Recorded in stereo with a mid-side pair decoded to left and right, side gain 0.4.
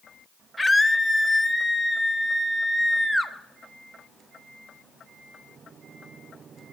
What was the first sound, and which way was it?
A scream, 15° left.